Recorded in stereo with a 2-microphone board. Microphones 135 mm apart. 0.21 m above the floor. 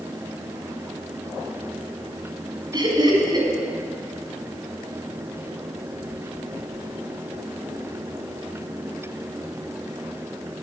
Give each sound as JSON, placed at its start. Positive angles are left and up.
{"t": 2.7, "sound": "laughter", "side_deg": -35, "distance_m": 1.9}